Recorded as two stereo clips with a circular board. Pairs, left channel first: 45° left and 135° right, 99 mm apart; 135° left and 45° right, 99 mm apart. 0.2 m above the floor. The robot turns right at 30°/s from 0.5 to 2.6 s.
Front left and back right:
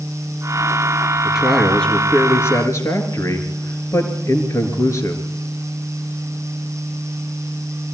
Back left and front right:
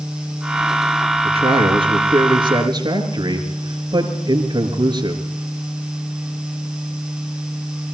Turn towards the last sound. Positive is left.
turn(degrees=-10)